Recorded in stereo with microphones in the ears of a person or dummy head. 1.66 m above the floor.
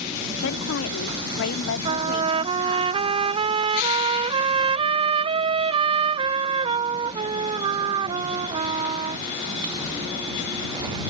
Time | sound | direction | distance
0.4 | a woman speaking | 70° left (ahead or behind) | ?
1.9 | a trumpet | 35° right (ahead or behind) | ?